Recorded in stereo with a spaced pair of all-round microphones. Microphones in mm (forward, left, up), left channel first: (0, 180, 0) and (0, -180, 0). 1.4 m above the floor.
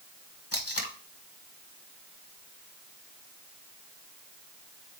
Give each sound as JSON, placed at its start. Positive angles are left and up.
{"t": 0.5, "sound": "tape being pulled", "side_deg": 40, "distance_m": 1.3}